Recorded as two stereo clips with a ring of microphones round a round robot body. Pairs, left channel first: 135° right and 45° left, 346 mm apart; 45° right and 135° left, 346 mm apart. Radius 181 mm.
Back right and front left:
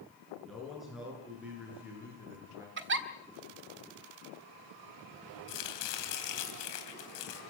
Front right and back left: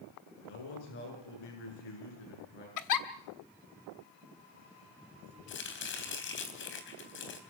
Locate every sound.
0.4 s a man speaking: 45° right, 8.5 m; by 2.7 s 35° right, 9 m
2.8 s a giggle: 10° right, 1.6 m
5.5 s chopping: 100° right, 3.5 m